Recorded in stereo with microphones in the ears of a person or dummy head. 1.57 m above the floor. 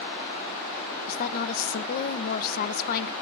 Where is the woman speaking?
50° left (ahead or behind), 1.0 m.